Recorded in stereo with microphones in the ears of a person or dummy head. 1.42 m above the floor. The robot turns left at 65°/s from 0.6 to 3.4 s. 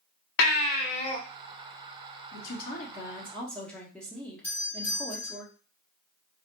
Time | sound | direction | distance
0.4 | a baby crying | 80° left | 0.7 m
2.3 | a woman speaking | 80° left | 1.4 m
4.4 | a doorbell | 15° left (ahead or behind) | 2.5 m